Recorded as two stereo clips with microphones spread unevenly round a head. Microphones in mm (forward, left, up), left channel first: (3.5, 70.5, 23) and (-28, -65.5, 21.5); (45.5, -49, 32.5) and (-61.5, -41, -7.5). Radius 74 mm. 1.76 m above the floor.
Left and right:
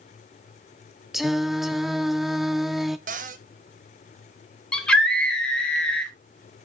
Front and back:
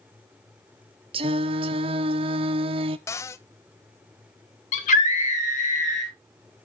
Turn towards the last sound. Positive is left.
turn(degrees=-5)